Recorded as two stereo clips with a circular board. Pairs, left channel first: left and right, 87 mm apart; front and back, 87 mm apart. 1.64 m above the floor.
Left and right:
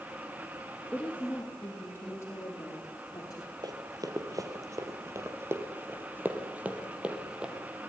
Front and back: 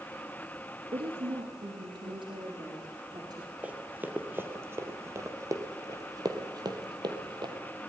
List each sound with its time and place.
0.9 s a woman speaking: 170° left, 3 m; by 3.5 s 135° left, 4.5 m
3.6 s running footsteps: 110° right, 2.5 m; by 7.5 s 170° right, 3 m